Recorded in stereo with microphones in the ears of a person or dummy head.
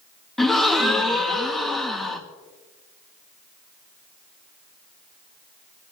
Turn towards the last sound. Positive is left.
turn(degrees=5)  # may be behind; listen again after turning